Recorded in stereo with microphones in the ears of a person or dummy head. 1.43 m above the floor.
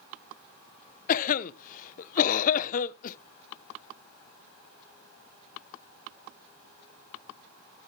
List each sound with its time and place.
1.1 s a cough: 50° left (ahead or behind), 0.8 m